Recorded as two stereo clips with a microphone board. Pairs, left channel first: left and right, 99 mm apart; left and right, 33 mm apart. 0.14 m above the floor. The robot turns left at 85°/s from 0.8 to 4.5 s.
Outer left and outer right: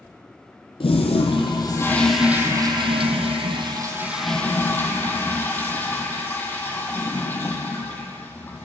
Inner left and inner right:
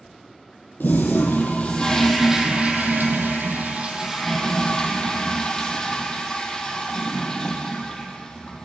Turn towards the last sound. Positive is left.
turn(degrees=160)